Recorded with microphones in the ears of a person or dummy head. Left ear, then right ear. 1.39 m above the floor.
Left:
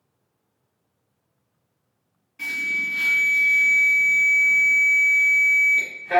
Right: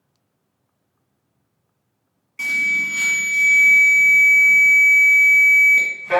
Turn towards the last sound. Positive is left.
turn(degrees=-50)  # may be behind; listen again after turning